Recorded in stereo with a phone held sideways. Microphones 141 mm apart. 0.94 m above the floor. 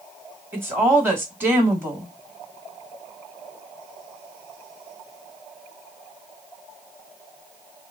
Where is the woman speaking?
15° right (ahead or behind), 2 m.